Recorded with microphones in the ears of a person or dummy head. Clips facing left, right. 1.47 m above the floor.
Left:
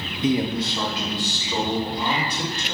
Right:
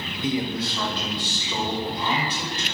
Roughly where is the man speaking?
Left.